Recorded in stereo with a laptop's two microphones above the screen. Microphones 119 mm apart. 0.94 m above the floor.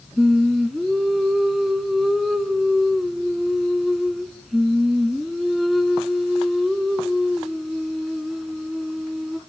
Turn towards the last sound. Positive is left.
turn(degrees=0)  # may be behind; listen again after turning